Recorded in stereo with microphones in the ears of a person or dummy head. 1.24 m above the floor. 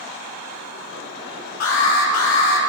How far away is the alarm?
About 4.5 m.